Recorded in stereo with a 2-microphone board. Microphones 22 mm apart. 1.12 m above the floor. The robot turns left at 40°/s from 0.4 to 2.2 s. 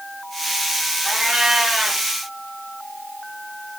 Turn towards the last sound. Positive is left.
turn(degrees=-155)